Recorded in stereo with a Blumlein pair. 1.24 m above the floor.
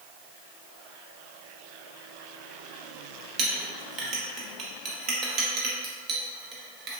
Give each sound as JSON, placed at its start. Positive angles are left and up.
{"t": 3.4, "sound": "a clink", "azimuth_deg": -30, "distance_m": 0.8}